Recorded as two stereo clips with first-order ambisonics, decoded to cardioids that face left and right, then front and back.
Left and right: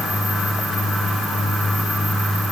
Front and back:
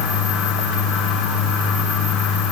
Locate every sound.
Only background noise.